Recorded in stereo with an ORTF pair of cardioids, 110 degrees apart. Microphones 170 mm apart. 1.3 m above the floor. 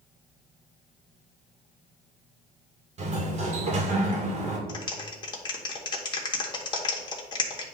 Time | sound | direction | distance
3.0 | a sliding door | 40° right | 2 m
4.7 | a clap | 25° left | 1.9 m